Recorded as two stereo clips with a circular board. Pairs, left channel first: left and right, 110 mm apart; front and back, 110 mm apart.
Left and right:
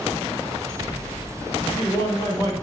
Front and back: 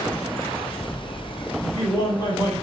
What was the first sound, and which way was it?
A man speaking, 40° left.